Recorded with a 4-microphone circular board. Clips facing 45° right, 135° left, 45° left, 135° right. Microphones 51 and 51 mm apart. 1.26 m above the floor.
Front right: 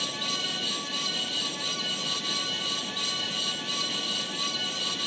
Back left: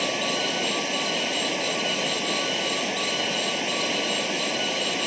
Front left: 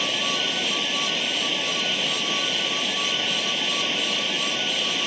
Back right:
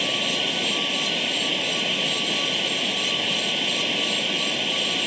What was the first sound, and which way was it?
Running water, 140° left.